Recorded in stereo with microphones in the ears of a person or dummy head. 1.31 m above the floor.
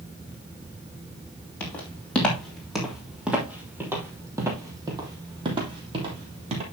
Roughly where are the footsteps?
Centre.